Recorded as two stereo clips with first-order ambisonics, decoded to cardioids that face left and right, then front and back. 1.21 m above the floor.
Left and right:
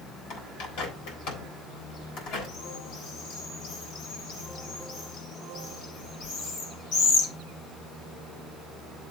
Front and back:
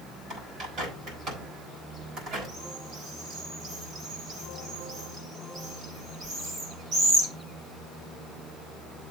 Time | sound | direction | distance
0.3 | a bird | 115° left | 3.5 m